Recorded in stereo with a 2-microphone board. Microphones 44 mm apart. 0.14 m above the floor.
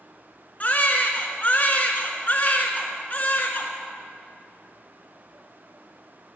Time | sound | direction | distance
0.6 | a baby crying | 35° left (ahead or behind) | 1.5 m